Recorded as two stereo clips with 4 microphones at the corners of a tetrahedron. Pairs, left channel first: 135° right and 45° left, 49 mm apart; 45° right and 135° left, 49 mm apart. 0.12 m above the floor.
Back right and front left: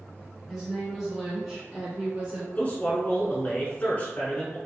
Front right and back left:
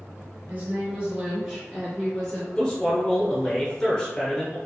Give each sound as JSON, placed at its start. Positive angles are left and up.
{"t": 0.5, "sound": "a woman speaking", "azimuth_deg": 135, "distance_m": 1.6}
{"t": 2.5, "sound": "a man speaking", "azimuth_deg": -110, "distance_m": 1.2}